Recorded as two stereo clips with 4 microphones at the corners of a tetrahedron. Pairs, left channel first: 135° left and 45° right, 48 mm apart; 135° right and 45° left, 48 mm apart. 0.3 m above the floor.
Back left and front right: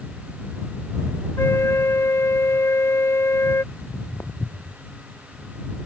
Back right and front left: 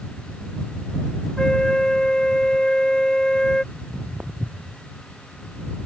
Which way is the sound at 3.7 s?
100° left.